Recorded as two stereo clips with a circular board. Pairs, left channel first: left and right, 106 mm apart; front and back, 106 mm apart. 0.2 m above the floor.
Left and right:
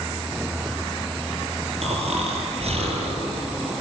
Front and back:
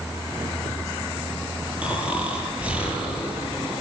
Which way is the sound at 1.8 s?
100° right.